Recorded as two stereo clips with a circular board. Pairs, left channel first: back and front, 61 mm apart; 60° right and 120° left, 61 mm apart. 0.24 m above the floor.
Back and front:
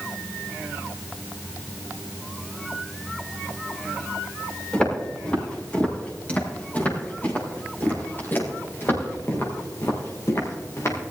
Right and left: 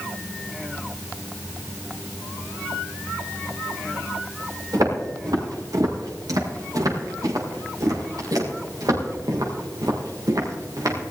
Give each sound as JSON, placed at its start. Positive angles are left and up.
{"t": 4.7, "sound": "footsteps", "azimuth_deg": 105, "distance_m": 6.0}